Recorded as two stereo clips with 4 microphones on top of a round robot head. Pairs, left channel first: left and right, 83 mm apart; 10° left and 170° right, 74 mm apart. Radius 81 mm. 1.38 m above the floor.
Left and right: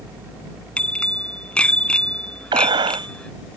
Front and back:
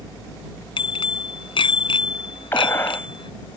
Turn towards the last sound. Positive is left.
turn(degrees=-60)